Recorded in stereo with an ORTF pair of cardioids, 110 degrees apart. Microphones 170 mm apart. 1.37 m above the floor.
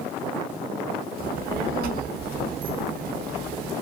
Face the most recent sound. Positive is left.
turn(degrees=-65)